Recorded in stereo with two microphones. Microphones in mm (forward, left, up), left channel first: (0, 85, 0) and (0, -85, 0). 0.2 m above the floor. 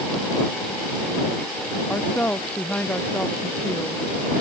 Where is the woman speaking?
10° left (ahead or behind).